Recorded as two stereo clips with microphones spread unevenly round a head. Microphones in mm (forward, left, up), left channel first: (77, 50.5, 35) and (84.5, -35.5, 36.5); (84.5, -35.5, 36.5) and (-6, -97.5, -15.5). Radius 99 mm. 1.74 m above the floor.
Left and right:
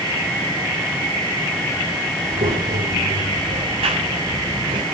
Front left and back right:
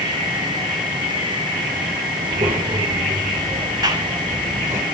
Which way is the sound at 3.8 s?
90° right.